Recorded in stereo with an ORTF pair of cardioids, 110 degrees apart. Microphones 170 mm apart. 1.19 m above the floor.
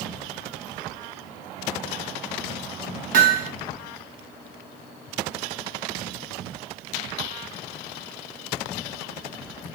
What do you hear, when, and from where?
3.1 s hammering: 55° right, 1.1 m